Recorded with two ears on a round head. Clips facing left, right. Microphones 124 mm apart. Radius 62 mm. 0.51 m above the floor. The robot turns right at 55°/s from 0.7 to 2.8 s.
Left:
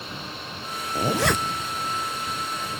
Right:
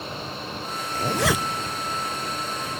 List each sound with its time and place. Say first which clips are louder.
0.9 s a zipper: left 1 dB; 15° left (ahead or behind); by 1.7 s 25° right (ahead or behind)